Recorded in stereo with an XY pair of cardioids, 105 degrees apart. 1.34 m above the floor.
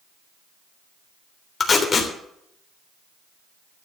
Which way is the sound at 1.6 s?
40° left.